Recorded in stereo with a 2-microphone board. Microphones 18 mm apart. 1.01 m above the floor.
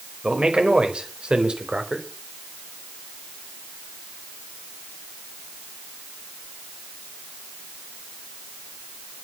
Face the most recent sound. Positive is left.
turn(degrees=-70)  # may be behind; listen again after turning